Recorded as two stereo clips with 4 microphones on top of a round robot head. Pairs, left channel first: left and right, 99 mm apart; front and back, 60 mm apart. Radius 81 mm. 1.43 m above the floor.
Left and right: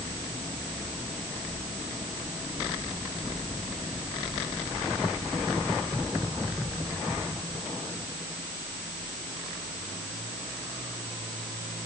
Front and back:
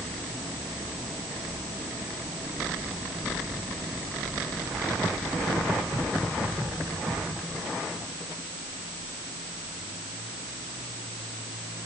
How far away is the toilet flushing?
I don't hear a toilet flushing.